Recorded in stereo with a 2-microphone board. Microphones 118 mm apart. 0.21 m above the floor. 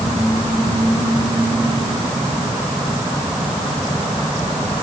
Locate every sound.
Only background noise.